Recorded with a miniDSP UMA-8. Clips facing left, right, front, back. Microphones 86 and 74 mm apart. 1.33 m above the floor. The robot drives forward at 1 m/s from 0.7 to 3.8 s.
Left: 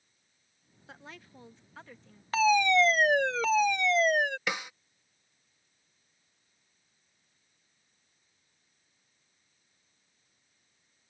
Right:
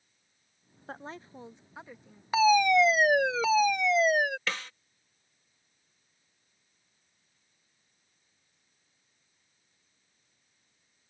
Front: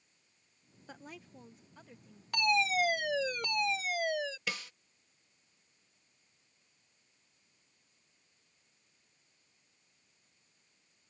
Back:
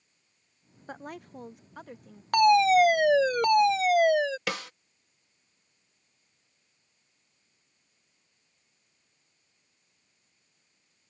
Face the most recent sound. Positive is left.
turn(degrees=165)